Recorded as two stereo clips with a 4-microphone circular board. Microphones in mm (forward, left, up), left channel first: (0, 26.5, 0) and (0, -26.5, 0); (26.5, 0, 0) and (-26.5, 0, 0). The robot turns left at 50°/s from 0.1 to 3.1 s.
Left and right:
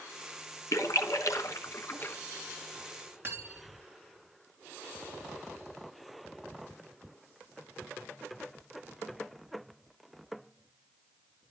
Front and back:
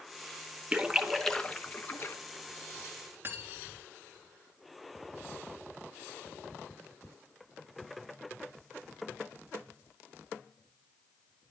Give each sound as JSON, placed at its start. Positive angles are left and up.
{"t": 0.7, "sound": "a splash", "azimuth_deg": 110, "distance_m": 0.8}
{"t": 3.2, "sound": "cutlery clinking", "azimuth_deg": -135, "distance_m": 2.5}